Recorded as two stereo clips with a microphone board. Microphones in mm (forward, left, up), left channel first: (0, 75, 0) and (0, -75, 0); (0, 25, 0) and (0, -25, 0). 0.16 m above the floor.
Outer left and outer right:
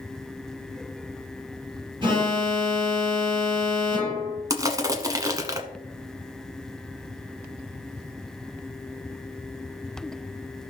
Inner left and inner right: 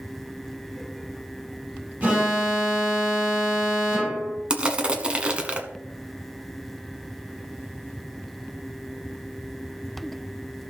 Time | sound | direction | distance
2.0 | an alarm | 30° right (ahead or behind) | 6 m
4.5 | crushing | 25° right (ahead or behind) | 1.1 m